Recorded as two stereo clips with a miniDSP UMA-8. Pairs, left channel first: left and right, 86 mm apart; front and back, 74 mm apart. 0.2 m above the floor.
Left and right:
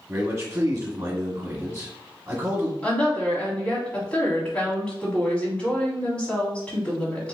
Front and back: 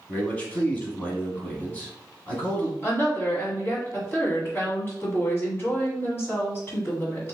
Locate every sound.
0.1 s a man speaking: 55° right, 1.5 m
2.8 s a woman speaking: 20° left, 1.4 m